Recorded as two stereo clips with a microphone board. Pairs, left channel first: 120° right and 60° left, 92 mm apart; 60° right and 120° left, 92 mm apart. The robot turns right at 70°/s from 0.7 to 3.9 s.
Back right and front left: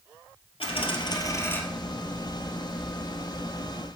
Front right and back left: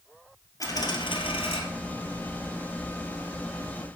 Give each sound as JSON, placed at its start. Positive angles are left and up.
{"t": 0.6, "sound": "a dropped coin", "azimuth_deg": -110, "distance_m": 2.0}